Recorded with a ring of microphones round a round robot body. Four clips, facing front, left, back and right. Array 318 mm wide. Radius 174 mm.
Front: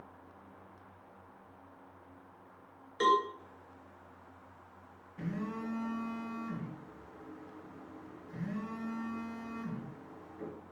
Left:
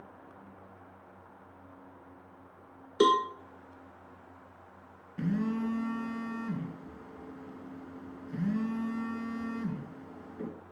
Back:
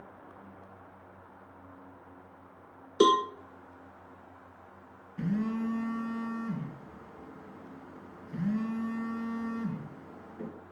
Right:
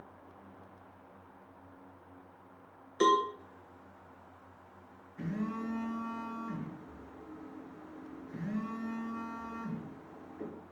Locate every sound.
3.0 s a cowbell: 150° left, 0.7 m
5.2 s a phone buzzing: 120° left, 2.5 m